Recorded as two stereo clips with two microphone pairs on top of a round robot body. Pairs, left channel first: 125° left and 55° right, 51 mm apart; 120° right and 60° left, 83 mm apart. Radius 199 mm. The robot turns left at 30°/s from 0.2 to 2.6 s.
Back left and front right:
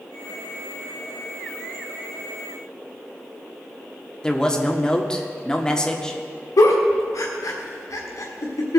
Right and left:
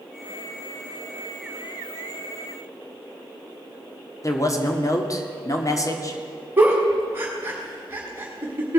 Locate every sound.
4.2 s a man speaking: 160° right, 1.8 m
6.6 s a giggle: 125° left, 1.4 m